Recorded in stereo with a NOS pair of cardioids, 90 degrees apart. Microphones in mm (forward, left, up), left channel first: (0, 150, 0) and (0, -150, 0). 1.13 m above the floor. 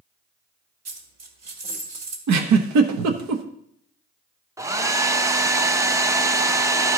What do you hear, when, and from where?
0.8 s a dropped coin: 65° right, 2 m
2.3 s a giggle: 70° right, 1.1 m
4.6 s a hair dryer: 10° right, 0.6 m